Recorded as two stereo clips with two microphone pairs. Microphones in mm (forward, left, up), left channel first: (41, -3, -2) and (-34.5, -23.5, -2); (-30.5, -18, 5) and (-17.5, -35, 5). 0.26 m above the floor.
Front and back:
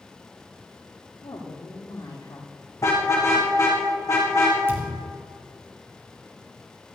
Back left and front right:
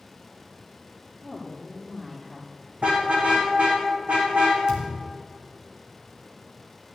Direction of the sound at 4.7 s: 105° right.